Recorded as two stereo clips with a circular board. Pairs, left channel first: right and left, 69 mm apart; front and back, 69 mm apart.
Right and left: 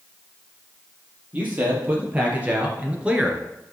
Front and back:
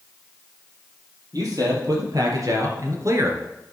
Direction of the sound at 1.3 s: 155° left.